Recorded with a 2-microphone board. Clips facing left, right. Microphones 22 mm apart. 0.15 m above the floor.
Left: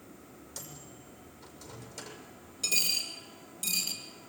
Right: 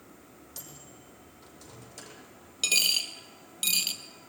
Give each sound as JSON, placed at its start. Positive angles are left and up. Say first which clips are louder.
{"t": 0.6, "sound": "a microwave", "louder": "left 1 dB", "side_deg": 5, "distance_m": 5.5}
{"t": 2.6, "sound": "a dropped coin", "louder": "right 5 dB", "side_deg": -65, "distance_m": 1.8}